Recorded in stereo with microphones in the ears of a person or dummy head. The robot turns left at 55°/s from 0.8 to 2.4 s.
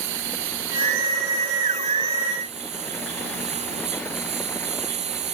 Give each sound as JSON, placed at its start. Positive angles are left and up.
{"t": 0.0, "sound": "a lawn mower", "azimuth_deg": -65}